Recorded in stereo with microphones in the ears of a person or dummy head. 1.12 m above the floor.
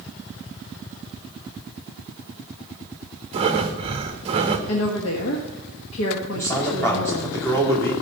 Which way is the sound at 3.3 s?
25° right (ahead or behind).